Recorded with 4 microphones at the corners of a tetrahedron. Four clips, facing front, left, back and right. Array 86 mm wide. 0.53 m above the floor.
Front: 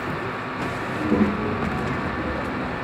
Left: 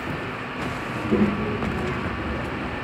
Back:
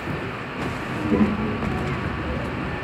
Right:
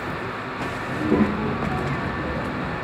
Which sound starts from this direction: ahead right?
A child speaking, at 0.9 s.